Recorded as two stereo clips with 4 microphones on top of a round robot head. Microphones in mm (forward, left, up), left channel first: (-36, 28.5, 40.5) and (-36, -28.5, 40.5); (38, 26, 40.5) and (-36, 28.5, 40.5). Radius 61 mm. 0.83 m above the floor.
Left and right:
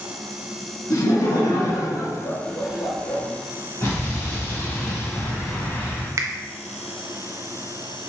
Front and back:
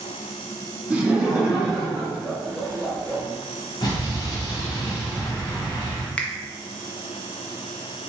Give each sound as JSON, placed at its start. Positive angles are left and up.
{"t": 0.9, "sound": "laughter", "azimuth_deg": 105, "distance_m": 1.6}
{"t": 3.8, "sound": "an explosion", "azimuth_deg": 30, "distance_m": 1.7}
{"t": 6.2, "sound": "a finger snap", "azimuth_deg": -75, "distance_m": 0.5}